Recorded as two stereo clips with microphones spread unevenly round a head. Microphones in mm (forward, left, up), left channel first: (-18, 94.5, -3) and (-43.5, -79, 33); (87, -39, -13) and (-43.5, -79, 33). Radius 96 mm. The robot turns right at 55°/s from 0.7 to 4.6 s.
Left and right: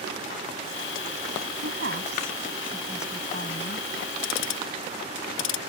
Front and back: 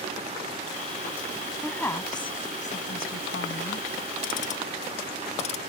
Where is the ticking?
60° left; by 5.6 s 80° left.